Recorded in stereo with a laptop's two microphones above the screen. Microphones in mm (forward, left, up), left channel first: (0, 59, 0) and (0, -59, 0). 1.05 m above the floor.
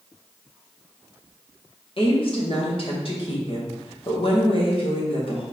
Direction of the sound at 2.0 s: 50° left (ahead or behind).